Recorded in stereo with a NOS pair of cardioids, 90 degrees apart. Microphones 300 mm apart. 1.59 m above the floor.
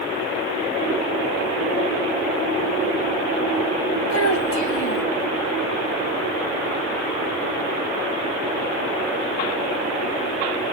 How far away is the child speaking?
About 1.7 m.